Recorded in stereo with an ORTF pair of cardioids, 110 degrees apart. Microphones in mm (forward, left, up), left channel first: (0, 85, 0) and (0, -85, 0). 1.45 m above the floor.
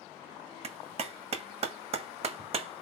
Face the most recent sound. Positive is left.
turn(degrees=-40)